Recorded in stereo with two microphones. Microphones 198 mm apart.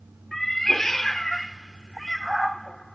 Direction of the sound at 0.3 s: Centre (ahead or behind).